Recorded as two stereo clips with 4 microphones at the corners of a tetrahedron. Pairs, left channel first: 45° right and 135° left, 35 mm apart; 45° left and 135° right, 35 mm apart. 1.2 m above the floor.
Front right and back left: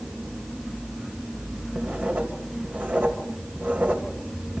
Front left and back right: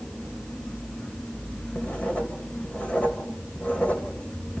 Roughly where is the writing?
Left.